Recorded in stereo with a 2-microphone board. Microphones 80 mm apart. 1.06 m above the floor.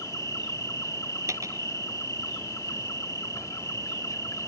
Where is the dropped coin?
40° right (ahead or behind).